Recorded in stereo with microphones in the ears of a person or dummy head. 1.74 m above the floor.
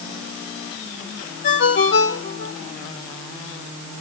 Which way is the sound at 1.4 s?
40° left (ahead or behind).